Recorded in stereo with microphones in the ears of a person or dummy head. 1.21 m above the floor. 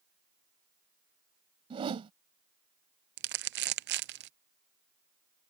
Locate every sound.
1.7 s a whoosh: 30° right (ahead or behind)
3.2 s crumpling: 55° right (ahead or behind)